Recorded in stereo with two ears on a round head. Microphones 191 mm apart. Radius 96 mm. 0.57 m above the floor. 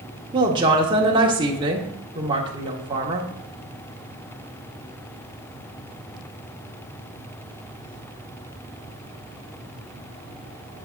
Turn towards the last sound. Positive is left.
turn(degrees=-25)  # may be behind; listen again after turning